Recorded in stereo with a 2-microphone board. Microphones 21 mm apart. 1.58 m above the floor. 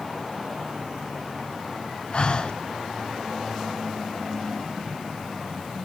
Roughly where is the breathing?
Left.